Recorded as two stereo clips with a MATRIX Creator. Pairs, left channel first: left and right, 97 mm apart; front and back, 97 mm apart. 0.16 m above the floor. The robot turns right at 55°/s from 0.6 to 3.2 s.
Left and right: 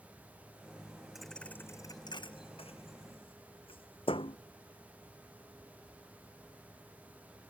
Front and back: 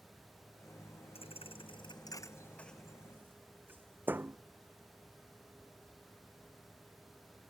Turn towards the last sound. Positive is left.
turn(degrees=110)